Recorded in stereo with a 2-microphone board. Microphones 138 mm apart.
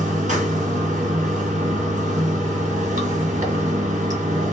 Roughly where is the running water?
Right.